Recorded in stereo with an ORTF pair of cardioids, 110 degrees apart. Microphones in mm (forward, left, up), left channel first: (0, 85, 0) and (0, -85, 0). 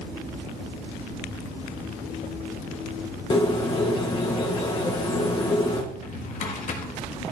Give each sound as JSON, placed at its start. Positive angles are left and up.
{"t": 3.3, "sound": "a bird", "azimuth_deg": 30, "distance_m": 1.3}
{"t": 5.9, "sound": "a drawer", "azimuth_deg": 50, "distance_m": 1.4}